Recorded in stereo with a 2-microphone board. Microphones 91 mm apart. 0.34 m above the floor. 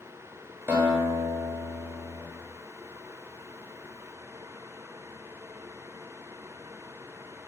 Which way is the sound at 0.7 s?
25° right (ahead or behind).